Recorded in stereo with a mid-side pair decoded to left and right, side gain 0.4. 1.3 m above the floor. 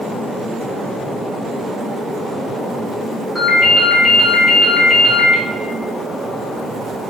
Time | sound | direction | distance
3.4 | a ringtone | 10° left | 1.7 m